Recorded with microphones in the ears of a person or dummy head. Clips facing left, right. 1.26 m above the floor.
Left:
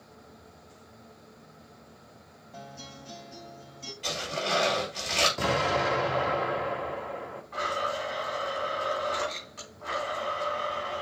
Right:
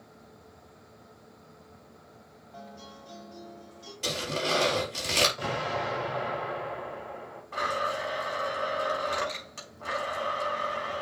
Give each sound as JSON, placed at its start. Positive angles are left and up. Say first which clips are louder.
{"t": 2.5, "sound": "a guitar", "louder": "left 1 dB", "side_deg": 35, "distance_m": 2.5}
{"t": 4.0, "sound": "tearing paper", "louder": "right 2 dB", "side_deg": -55, "distance_m": 4.0}
{"t": 5.4, "sound": "an explosion", "louder": "left 5 dB", "side_deg": 60, "distance_m": 3.0}
{"t": 7.5, "sound": "a blender", "louder": "even", "side_deg": -45, "distance_m": 4.5}